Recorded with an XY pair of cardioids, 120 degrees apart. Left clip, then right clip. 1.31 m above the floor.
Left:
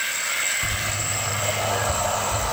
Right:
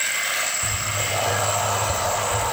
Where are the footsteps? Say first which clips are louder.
Right 1 dB; 35° left, 4.5 m.